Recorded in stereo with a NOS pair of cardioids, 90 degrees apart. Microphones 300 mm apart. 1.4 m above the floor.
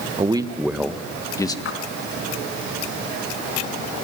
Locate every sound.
0.2 s a man speaking: 20° right, 1.4 m; by 1.6 s 10° left, 2 m
1.6 s a splash: 45° left, 3.5 m